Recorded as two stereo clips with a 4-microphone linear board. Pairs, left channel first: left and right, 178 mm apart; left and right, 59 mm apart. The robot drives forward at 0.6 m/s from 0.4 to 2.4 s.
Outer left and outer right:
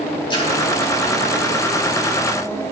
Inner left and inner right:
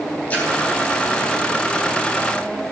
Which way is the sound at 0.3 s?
25° left (ahead or behind).